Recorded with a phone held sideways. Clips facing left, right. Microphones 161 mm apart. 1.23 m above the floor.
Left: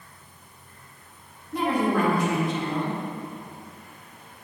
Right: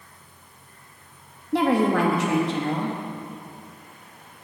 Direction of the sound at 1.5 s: 80° right.